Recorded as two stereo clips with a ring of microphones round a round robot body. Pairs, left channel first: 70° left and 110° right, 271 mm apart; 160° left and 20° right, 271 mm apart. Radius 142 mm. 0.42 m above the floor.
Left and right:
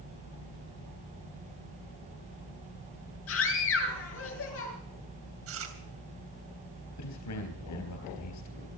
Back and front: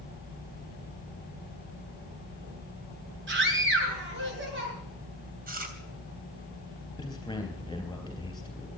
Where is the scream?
25° left, 8.5 m.